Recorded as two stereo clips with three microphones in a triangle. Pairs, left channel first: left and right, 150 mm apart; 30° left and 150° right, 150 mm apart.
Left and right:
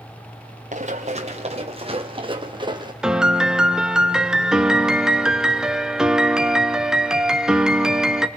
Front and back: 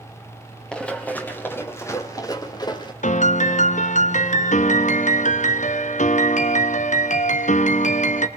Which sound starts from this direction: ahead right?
Running footsteps, at 0.7 s.